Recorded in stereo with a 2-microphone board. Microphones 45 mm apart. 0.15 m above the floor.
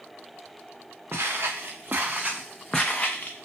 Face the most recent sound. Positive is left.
turn(degrees=40)  # may be behind; listen again after turning